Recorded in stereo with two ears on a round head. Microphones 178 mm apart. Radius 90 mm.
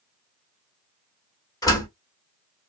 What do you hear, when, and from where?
1.6 s a door slam: 20° left (ahead or behind), 1.3 m